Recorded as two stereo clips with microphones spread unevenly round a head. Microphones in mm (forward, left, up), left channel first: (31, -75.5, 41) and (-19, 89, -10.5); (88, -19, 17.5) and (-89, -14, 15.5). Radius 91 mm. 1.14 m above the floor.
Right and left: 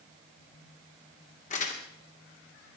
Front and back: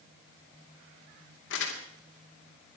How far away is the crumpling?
About 3 m.